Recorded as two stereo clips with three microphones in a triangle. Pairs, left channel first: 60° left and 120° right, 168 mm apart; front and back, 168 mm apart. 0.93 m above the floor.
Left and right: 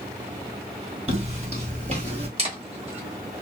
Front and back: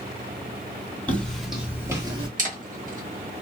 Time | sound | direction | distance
1.1 | footsteps | 80° right | 1.4 m
2.4 | a camera shutter | 160° right | 1.2 m